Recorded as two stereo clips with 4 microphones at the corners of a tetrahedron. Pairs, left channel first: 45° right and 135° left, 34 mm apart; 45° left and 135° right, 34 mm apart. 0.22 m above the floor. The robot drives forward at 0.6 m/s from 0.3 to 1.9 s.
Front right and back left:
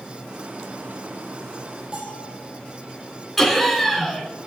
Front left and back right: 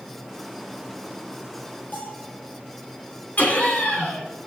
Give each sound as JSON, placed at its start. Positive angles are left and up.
{"t": 1.9, "sound": "a bell", "azimuth_deg": 75, "distance_m": 6.5}
{"t": 3.4, "sound": "laughter", "azimuth_deg": 35, "distance_m": 2.5}